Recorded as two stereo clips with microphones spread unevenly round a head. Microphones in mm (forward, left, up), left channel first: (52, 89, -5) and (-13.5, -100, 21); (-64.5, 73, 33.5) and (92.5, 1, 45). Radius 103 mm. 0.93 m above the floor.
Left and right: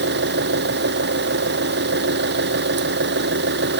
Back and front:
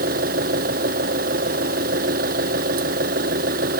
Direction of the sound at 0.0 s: 75° right.